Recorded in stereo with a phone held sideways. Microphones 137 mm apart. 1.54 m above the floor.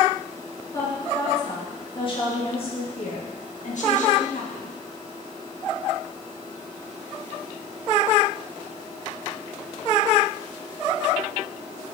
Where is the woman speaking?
25° left (ahead or behind), 3 m; by 4.8 s 80° left, 1.9 m.